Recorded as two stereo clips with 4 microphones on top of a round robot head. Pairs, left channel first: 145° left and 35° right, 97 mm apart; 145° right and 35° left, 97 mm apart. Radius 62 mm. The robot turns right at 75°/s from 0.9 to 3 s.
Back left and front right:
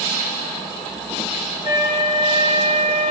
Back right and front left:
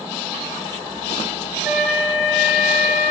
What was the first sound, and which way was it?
A flute, 115° left.